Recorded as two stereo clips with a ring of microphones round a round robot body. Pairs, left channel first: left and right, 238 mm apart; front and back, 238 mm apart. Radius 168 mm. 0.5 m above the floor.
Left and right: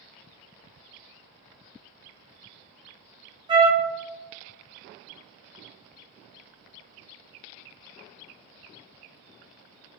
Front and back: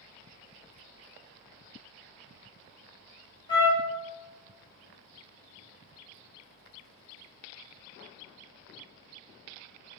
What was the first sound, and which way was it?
A trumpet, 45° right.